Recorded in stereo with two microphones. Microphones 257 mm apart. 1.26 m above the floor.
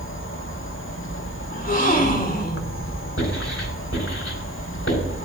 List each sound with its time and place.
0.0 s an insect: 50° left (ahead or behind), 0.8 m
1.5 s a gasp: 30° left (ahead or behind), 1.3 m
3.2 s writing: 55° left (ahead or behind), 4 m